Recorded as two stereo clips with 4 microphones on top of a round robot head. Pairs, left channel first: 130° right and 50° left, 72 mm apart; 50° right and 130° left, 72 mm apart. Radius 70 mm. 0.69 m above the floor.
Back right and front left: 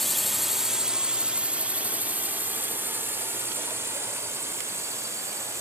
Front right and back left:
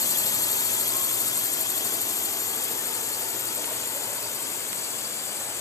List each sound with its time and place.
0.0 s a drone: 45° right; by 5.6 s straight ahead